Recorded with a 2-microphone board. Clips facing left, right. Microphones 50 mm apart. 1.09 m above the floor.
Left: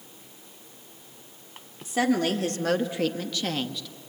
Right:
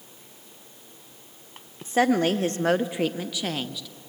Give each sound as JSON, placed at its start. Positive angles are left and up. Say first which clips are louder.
{"t": 1.8, "sound": "a woman speaking", "louder": "right 3 dB", "side_deg": -35, "distance_m": 0.9}